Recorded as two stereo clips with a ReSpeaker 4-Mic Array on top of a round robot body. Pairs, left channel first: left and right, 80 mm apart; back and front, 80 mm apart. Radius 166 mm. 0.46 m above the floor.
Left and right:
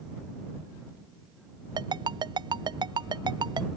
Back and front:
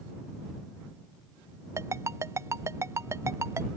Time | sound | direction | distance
1.8 | a ringtone | 55° right | ?